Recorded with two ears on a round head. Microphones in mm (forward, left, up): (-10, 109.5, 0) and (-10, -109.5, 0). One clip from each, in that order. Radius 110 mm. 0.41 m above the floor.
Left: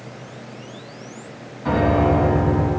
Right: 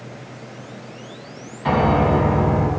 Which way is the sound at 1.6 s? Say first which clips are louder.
Right 1 dB; 60° right (ahead or behind).